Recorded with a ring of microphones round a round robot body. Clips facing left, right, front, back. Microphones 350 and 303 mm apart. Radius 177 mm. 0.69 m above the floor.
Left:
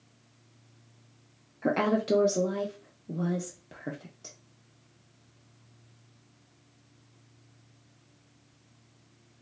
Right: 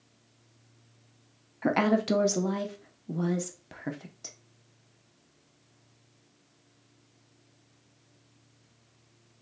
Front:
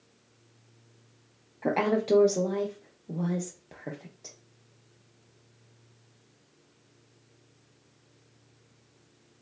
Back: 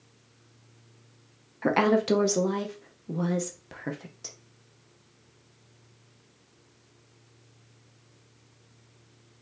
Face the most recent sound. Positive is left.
turn(degrees=-145)